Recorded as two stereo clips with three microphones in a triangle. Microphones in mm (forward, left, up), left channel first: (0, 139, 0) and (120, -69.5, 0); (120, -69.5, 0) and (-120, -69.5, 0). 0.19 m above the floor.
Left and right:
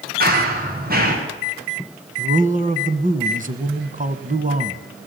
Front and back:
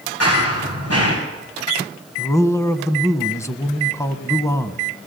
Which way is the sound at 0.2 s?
10° right.